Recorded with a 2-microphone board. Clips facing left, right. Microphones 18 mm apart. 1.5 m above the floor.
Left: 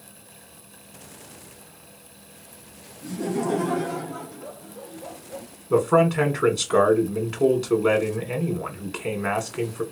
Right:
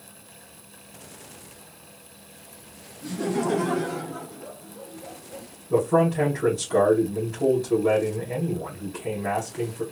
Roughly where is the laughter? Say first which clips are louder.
Right 1 dB; right.